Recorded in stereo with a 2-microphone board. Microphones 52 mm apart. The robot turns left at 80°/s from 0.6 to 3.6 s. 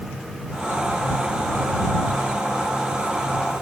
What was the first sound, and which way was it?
Only background noise.